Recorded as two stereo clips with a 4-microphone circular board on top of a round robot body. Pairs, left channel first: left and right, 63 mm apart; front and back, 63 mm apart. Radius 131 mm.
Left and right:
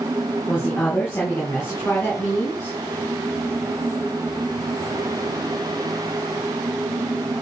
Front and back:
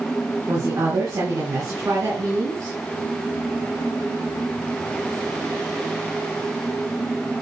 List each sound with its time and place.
0.5 s a woman speaking: 140° left, 4.5 m